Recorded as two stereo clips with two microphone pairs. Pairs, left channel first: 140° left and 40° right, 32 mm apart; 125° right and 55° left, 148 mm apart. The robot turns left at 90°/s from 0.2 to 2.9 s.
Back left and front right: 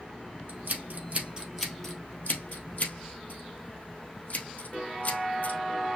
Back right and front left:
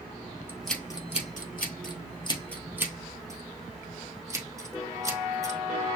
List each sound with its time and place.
0.5 s scissors: 20° right, 1.5 m; by 5.6 s 120° left, 1.5 m